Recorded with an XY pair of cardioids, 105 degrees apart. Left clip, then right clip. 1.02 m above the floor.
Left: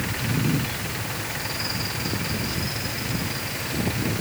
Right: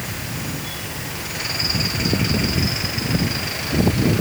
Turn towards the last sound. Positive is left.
No sound to turn to.